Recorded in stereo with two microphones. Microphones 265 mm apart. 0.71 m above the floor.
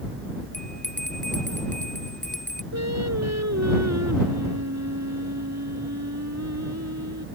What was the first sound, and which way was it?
A bell, 30° right (ahead or behind).